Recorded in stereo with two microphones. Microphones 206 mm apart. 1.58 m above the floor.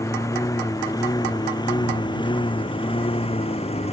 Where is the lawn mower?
15° left (ahead or behind); by 3.9 s 30° left (ahead or behind).